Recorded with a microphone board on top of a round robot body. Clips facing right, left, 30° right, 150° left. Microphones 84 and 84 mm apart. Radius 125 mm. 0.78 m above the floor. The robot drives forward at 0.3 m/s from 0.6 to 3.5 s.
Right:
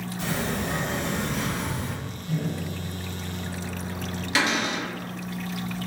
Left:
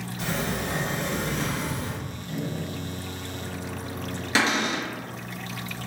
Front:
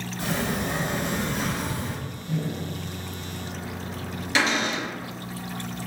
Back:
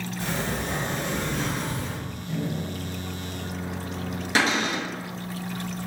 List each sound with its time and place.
0.2 s a sliding door: 60° right, 1.5 m; by 2.0 s 80° right, 1.3 m
2.3 s a microwave: 160° right, 1.5 m; by 4.2 s 165° right, 1.9 m
4.3 s a cupboard door: 135° left, 1.3 m